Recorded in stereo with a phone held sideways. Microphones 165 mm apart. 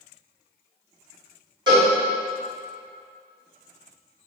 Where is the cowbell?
25° right (ahead or behind), 1.6 m.